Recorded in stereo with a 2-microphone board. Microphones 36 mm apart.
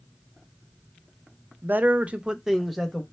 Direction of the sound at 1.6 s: 55° right (ahead or behind).